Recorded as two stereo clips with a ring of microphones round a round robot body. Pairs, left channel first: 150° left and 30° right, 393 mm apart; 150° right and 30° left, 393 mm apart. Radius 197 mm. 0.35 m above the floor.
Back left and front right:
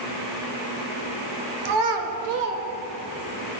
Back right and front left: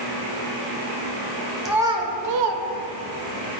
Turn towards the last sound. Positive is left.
turn(degrees=75)